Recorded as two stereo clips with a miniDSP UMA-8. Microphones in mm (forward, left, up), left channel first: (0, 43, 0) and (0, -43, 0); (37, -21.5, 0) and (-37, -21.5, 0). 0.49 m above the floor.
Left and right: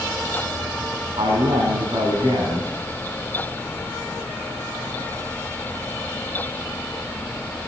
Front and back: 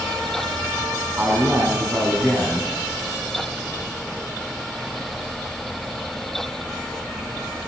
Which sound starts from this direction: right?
A man speaking, at 1.2 s.